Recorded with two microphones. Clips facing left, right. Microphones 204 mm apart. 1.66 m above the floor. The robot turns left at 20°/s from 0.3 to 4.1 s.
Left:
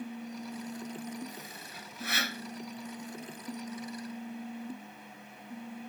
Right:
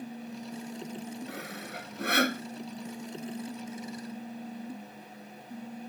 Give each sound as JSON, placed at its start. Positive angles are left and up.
{"t": 1.3, "sound": "sawing", "side_deg": -75}